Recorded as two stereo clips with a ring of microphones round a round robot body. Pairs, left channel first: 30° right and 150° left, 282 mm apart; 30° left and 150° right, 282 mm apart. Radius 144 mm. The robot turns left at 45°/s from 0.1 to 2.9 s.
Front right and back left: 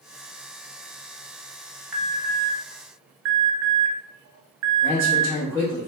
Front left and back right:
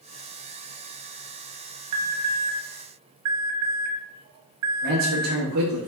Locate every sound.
1.9 s an alarm: 125° right, 1.0 m; by 5.4 s 165° right, 1.0 m
4.8 s a man speaking: 110° right, 1.1 m